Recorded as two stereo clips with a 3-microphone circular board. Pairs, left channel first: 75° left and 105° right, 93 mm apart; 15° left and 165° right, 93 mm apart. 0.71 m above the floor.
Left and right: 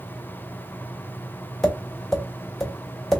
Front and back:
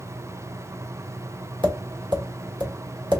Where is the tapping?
160° left, 1.5 m.